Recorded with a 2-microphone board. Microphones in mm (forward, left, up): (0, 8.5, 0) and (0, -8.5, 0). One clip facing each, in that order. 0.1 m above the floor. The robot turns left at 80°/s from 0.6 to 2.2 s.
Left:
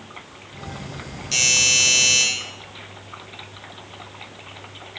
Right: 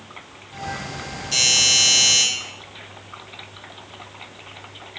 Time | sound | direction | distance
1.3 | a doorbell | 45° left | 1.8 m